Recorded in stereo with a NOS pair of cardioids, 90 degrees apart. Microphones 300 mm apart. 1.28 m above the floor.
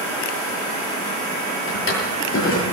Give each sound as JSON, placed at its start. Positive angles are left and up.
{"t": 1.7, "sound": "a drawer", "azimuth_deg": 45, "distance_m": 9.0}